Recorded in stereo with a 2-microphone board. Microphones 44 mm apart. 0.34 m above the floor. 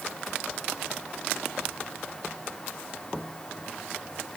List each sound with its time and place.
Only background noise.